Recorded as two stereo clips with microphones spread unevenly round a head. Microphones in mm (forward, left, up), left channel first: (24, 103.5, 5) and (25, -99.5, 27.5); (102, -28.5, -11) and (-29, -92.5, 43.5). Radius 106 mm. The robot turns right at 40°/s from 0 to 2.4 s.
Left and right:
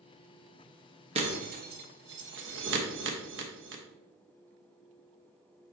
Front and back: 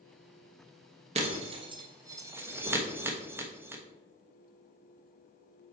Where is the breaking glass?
145° right, 1.2 m; by 3.8 s 95° right, 1.2 m.